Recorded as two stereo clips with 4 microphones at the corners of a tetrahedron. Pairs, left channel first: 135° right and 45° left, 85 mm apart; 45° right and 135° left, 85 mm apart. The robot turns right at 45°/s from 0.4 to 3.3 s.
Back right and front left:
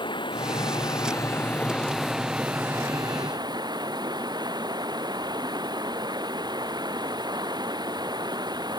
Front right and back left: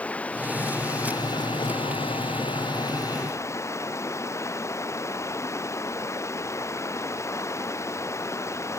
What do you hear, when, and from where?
0.0 s running water: 120° right; by 8.8 s 10° left